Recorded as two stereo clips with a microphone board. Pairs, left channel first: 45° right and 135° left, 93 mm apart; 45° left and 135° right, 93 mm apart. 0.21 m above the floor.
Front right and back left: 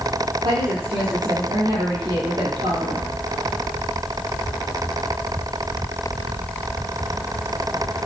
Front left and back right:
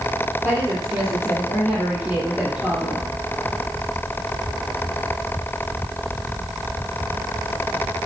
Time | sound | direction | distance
0.4 | a woman speaking | 135° left | 6 m